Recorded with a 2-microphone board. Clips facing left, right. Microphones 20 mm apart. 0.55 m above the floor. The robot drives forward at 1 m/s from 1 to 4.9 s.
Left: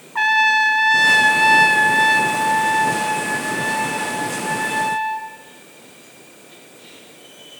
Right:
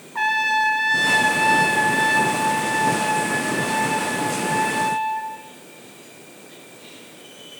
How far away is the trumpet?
About 1.0 m.